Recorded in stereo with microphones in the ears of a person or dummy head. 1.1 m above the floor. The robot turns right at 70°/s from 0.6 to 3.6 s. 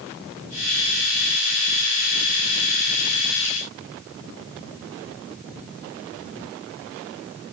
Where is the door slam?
No door slam in this recording.